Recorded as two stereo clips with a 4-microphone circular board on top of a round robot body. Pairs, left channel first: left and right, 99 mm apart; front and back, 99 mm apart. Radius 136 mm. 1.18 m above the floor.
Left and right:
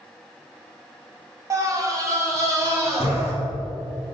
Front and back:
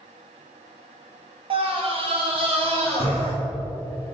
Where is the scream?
150° right, 2.5 m; by 3.3 s 155° right, 4 m.